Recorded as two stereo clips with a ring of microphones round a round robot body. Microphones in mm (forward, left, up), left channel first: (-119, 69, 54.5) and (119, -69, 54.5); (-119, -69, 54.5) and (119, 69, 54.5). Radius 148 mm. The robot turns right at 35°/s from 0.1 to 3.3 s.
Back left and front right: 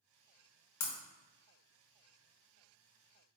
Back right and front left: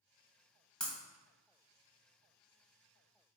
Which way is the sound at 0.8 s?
125° left.